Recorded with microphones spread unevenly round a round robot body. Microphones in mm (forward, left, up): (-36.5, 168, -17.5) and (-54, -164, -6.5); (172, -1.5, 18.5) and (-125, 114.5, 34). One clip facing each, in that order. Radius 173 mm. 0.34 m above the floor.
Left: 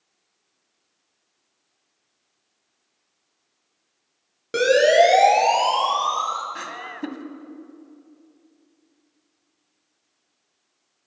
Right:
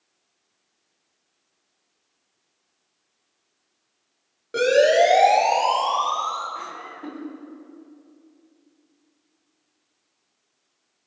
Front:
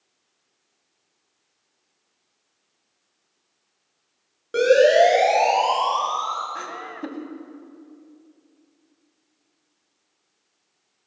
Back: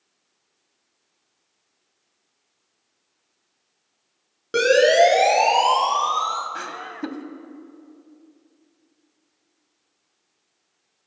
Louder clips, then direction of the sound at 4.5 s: Left 1 dB, front 1 dB; 120° left.